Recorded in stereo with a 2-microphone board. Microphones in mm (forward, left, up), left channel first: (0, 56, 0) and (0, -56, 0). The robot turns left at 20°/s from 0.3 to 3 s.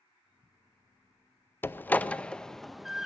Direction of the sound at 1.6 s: 20° left (ahead or behind).